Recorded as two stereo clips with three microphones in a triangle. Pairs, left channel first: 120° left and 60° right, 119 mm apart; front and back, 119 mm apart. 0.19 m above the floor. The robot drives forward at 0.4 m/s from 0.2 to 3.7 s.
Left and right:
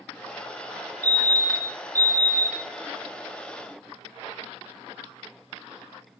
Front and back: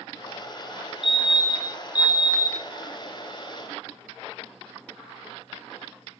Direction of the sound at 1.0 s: 100° right.